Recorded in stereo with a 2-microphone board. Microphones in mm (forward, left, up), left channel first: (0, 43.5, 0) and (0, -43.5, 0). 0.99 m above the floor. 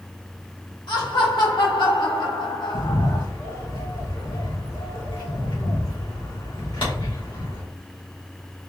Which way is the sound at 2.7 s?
85° left.